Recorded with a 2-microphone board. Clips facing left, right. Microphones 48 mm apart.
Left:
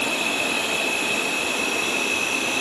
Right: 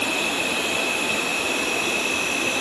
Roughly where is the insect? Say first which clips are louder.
Even; right.